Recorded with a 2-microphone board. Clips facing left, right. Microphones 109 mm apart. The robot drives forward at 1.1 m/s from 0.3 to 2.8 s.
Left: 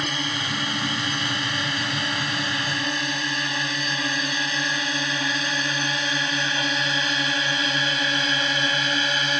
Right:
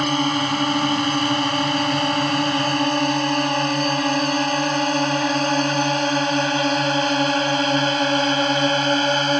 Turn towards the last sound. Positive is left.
turn(degrees=-40)  # may be behind; listen again after turning